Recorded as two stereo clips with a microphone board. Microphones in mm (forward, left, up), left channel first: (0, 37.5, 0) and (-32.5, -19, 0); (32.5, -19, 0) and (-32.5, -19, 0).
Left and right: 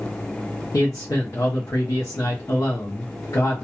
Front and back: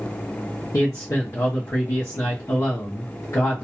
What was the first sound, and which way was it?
A man speaking, 30° left.